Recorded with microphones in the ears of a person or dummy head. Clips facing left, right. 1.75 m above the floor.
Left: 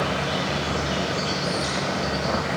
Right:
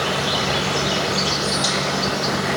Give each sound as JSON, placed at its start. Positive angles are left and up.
{"t": 0.0, "sound": "an insect", "side_deg": -65, "distance_m": 3.0}